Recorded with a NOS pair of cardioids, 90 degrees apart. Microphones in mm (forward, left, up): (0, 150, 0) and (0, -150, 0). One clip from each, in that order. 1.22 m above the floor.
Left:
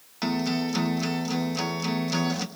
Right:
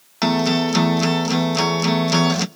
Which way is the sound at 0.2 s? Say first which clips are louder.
Right 9 dB; 50° right.